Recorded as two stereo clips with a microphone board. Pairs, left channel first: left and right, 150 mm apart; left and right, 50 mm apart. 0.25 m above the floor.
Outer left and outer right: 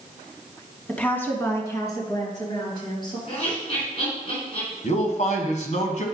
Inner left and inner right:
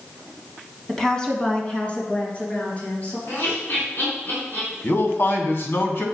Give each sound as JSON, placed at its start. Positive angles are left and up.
{"t": 0.9, "sound": "a woman speaking", "side_deg": 5, "distance_m": 1.5}
{"t": 3.3, "sound": "laughter", "side_deg": 45, "distance_m": 3.5}
{"t": 4.8, "sound": "a man speaking", "side_deg": 55, "distance_m": 1.6}